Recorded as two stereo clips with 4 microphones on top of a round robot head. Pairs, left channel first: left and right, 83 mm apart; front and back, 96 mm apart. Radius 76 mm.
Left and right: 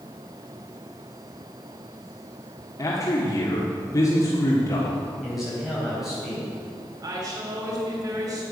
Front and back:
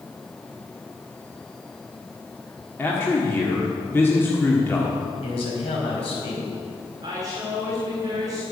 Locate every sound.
2.8 s a man speaking: 55° left, 1.5 m
5.2 s a man speaking: 5° right, 4 m
7.0 s a woman speaking: 125° right, 3.5 m